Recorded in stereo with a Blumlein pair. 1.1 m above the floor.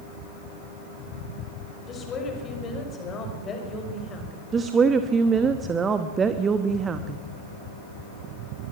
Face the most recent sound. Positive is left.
turn(degrees=-20)